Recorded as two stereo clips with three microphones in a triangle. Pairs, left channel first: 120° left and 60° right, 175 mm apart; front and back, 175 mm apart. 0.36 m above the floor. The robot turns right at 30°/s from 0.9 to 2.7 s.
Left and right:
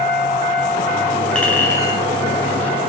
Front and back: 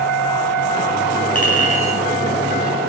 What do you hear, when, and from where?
1.4 s a clink: 35° left, 1.9 m; by 2.9 s 75° left, 1.9 m